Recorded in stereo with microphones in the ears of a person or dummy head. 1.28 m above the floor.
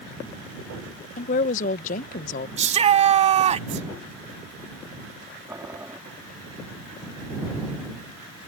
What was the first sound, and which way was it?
A woman speaking, 45° left (ahead or behind).